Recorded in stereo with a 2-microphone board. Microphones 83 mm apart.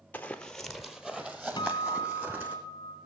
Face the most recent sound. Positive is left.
turn(degrees=60)  # may be behind; listen again after turning